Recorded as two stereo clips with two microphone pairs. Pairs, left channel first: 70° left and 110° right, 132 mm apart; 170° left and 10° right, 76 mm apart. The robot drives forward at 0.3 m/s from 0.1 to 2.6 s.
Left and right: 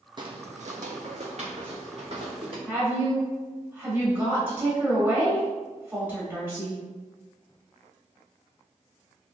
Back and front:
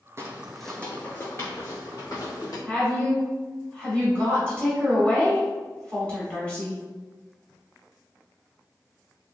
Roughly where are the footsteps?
Ahead right.